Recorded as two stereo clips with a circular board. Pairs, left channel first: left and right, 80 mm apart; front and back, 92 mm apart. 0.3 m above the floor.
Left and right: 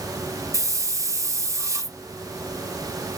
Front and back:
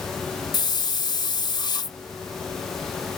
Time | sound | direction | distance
0.5 | a hiss | 40° right | 0.5 m